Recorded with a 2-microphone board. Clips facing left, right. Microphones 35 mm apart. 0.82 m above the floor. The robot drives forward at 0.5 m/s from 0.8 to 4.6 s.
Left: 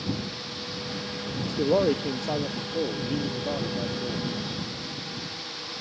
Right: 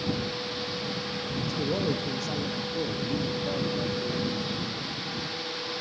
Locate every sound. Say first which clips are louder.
1.4 s a man speaking: left 7 dB; 45° left (ahead or behind), 0.7 m; by 4.3 s 15° left (ahead or behind), 1.5 m